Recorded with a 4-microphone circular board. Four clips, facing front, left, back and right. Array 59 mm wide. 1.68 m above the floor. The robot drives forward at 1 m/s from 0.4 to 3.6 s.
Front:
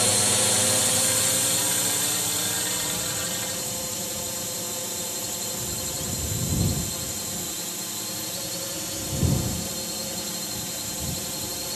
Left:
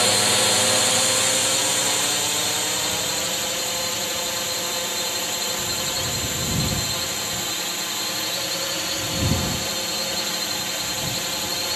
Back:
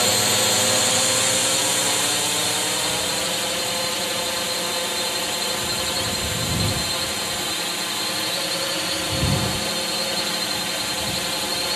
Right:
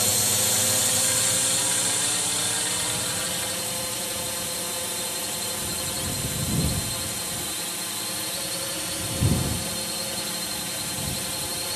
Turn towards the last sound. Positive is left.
turn(degrees=155)